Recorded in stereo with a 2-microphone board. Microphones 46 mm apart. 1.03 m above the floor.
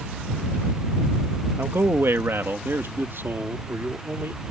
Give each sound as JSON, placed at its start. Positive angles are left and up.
{"t": 1.6, "sound": "a man speaking", "side_deg": -65}